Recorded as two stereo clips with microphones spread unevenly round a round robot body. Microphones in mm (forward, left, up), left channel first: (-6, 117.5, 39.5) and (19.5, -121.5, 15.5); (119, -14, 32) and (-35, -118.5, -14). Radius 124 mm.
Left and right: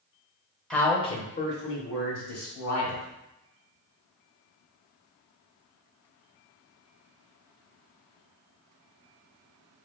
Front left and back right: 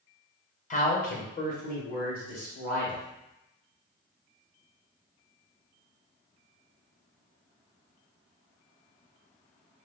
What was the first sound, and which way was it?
A man speaking, straight ahead.